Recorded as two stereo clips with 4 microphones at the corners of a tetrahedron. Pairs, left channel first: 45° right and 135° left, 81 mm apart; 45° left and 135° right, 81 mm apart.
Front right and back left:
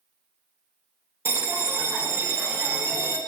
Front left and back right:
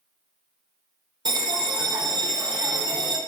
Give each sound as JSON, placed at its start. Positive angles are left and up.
{"t": 1.2, "sound": "a bell", "azimuth_deg": -165, "distance_m": 0.5}